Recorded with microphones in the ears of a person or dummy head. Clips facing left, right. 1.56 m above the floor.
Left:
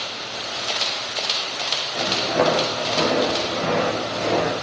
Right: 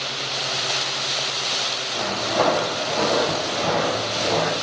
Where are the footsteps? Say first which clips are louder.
Left 2 dB; 20° left (ahead or behind), 6 m.